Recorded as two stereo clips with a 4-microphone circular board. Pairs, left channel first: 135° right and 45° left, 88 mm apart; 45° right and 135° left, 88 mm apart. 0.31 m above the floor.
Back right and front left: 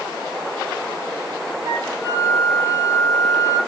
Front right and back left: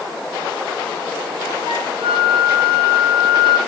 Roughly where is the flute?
Left.